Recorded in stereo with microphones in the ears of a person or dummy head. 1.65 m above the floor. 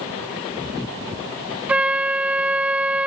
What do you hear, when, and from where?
1.7 s a flute: 5° right (ahead or behind)